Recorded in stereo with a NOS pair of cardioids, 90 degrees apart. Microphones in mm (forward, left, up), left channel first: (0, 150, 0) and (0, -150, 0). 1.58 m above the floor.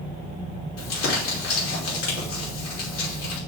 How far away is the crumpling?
About 5.5 m.